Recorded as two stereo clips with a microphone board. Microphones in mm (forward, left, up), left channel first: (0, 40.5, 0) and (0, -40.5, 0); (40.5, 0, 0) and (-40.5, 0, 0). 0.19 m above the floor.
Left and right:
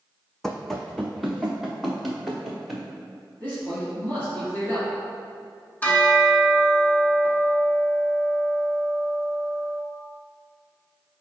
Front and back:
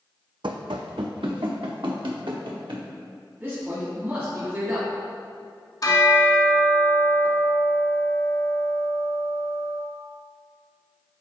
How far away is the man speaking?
About 1.8 m.